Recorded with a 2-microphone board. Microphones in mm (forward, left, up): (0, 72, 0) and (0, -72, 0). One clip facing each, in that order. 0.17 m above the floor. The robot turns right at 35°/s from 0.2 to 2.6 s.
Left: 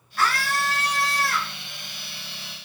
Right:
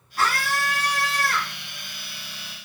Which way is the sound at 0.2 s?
35° right.